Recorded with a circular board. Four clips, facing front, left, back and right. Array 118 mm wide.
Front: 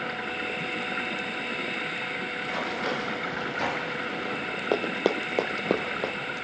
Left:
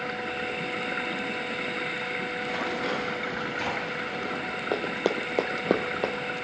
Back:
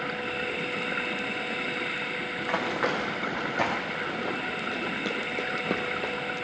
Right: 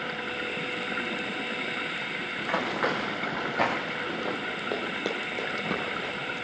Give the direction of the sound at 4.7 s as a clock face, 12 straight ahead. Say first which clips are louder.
Left 6 dB, front 11 dB; 11 o'clock.